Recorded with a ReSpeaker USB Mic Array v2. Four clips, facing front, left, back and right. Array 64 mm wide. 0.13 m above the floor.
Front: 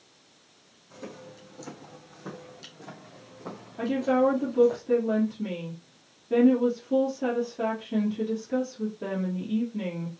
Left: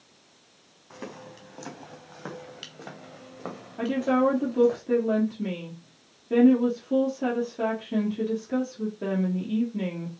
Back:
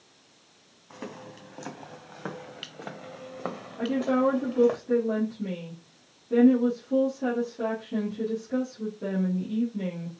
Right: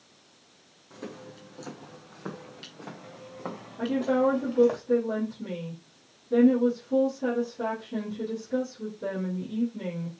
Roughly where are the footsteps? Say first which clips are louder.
Left 1 dB, back 2 dB; behind left.